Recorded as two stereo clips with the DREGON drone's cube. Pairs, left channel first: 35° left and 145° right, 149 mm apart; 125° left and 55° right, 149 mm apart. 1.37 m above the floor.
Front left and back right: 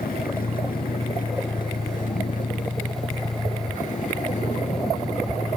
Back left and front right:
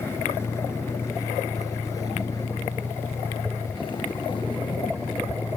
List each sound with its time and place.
0.0 s a vehicle: 50° left; by 5.6 s 75° left